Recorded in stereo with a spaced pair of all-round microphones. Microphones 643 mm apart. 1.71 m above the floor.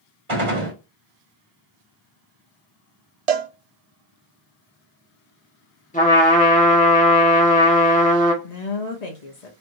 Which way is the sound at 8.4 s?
85° left.